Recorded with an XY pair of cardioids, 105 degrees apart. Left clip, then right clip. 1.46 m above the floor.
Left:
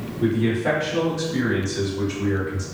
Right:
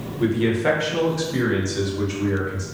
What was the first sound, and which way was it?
A man speaking, 60° right.